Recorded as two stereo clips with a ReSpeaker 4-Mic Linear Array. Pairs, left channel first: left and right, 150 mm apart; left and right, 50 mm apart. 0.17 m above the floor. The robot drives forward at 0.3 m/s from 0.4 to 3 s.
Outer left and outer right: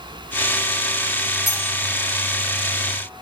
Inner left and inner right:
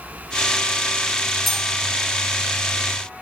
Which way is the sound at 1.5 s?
5° right (ahead or behind).